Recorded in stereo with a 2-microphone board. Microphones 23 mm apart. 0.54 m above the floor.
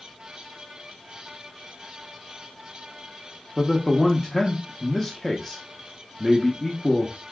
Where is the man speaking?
15° left (ahead or behind), 0.7 m.